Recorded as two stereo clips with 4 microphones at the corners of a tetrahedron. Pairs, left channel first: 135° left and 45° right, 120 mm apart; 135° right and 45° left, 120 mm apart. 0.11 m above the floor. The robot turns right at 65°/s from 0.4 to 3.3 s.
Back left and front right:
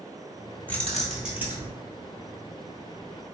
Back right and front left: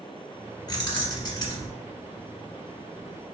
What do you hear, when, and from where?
0.7 s keys jangling: 160° right, 1.0 m; by 1.7 s 95° right, 1.0 m